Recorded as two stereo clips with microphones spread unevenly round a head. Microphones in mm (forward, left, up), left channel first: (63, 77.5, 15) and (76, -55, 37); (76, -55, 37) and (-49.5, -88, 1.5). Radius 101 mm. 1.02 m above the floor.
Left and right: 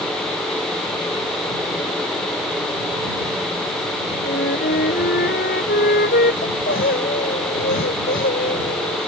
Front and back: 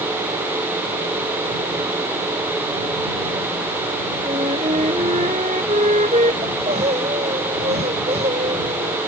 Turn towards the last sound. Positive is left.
turn(degrees=135)